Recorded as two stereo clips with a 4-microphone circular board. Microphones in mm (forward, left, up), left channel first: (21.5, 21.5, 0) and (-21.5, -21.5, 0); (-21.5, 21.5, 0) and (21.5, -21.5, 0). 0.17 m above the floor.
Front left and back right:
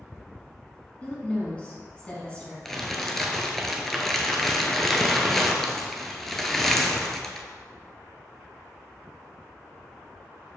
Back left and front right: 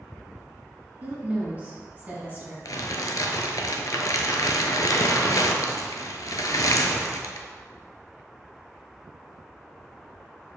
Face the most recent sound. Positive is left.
turn(degrees=130)